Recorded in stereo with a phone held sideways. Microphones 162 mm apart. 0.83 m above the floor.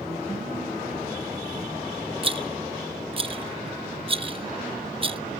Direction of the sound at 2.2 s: 35° right (ahead or behind).